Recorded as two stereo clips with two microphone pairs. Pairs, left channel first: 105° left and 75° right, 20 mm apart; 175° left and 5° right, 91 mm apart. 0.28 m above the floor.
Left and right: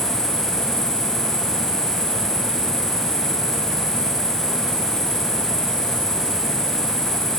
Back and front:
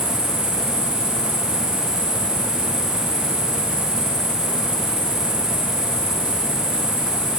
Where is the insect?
170° left, 1.2 m.